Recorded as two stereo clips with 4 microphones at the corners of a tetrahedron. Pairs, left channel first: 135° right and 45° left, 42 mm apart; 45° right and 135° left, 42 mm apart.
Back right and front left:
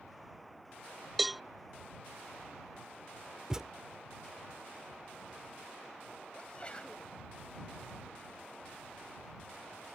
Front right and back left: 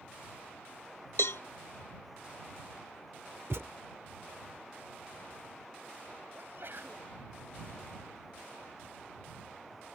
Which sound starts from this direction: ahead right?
A cowbell, at 1.2 s.